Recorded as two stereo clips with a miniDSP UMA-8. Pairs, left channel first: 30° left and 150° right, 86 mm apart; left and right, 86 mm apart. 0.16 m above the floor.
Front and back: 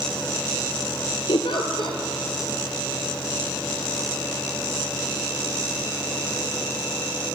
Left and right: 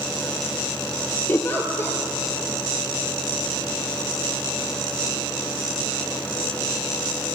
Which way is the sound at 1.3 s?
30° left.